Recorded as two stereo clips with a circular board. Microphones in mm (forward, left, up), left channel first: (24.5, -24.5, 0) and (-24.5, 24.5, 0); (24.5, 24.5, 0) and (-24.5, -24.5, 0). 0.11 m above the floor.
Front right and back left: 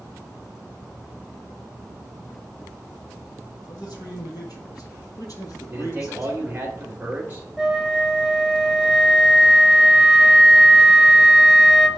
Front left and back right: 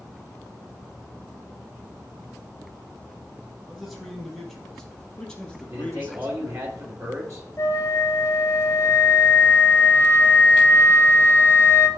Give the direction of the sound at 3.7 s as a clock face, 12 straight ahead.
2 o'clock.